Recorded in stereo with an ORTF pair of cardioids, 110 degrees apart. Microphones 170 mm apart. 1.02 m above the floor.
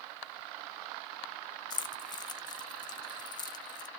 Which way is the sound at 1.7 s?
25° left.